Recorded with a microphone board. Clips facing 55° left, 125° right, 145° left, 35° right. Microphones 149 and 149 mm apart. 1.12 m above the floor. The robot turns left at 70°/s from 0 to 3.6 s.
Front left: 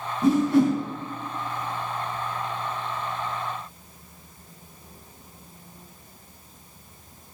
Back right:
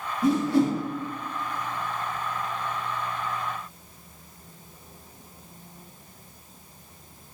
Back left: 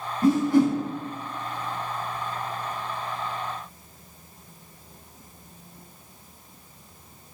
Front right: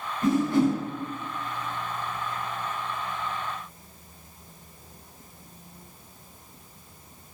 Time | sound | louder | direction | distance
0.2 | a whoosh | front left 3 dB, back left 3 dB | 95° left | 2 m